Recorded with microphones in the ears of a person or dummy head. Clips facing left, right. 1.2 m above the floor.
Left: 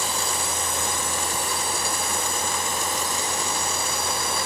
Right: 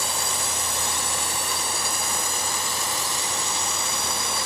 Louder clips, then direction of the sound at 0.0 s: Left 2 dB; 55° right (ahead or behind).